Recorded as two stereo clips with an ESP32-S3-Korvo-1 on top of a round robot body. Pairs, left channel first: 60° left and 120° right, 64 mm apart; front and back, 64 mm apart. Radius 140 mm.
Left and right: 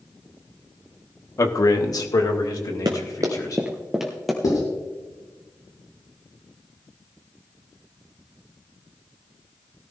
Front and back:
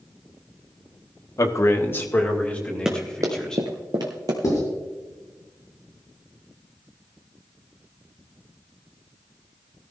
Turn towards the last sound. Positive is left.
turn(degrees=35)